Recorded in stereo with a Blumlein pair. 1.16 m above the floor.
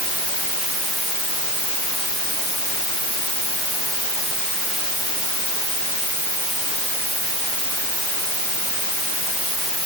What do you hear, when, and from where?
Only background noise.